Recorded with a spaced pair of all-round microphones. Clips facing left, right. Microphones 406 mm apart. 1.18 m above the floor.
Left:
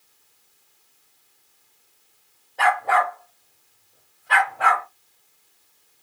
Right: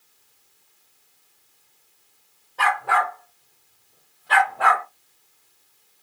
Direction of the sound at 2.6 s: 15° right (ahead or behind).